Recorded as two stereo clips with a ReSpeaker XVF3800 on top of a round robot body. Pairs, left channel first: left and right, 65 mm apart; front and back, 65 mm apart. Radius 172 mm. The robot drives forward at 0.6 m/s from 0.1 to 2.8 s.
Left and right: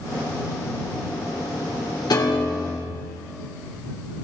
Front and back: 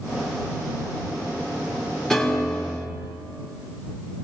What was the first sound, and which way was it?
A piano, 85° left.